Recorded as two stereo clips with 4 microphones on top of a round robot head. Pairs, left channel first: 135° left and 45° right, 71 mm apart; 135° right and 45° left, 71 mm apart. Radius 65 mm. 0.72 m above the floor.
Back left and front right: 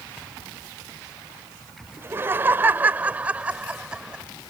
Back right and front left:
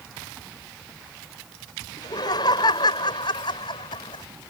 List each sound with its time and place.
2.0 s laughter: 105° right; by 4.2 s 125° right